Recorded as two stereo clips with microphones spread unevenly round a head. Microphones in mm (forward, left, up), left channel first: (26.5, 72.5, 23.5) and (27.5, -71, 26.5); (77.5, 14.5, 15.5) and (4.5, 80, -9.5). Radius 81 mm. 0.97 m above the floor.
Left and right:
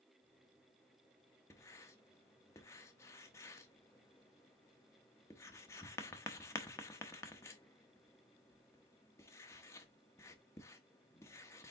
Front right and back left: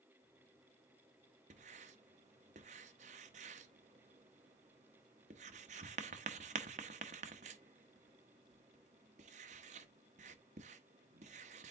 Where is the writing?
165° left, 0.9 m.